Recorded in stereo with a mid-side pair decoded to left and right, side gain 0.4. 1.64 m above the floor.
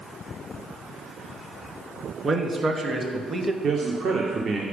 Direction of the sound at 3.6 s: 55° right.